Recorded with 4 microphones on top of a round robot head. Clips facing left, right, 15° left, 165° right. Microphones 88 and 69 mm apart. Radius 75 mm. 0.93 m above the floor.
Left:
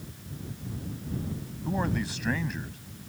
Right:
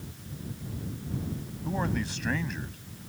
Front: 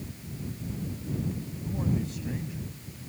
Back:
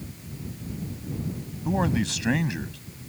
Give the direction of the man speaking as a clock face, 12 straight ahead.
6 o'clock.